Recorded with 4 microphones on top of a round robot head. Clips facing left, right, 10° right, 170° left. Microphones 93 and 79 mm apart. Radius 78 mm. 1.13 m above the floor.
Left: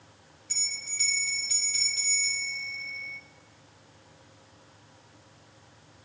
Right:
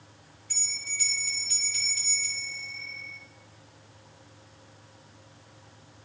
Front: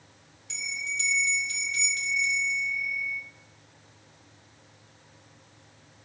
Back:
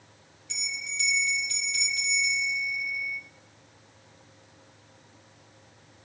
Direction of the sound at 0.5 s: 30° left.